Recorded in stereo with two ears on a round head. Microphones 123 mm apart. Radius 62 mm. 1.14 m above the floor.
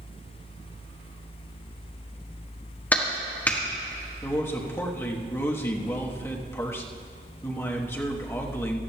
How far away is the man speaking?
About 1.2 m.